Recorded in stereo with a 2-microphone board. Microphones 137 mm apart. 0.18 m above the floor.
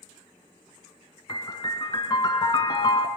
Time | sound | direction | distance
1.3 | a piano | 35° left (ahead or behind) | 0.5 m